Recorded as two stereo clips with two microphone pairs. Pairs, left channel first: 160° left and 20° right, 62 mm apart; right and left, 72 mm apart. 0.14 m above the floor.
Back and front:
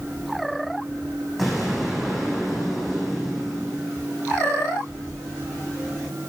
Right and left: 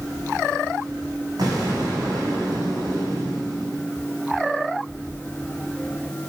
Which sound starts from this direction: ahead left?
An explosion, at 1.4 s.